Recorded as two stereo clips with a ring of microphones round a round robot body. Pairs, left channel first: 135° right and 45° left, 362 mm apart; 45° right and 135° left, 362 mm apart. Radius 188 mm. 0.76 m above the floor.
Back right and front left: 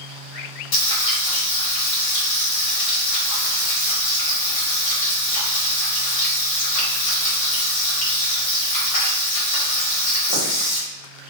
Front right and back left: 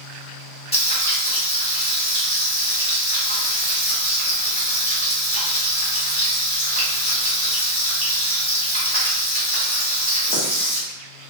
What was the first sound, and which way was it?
Frying, 120° right.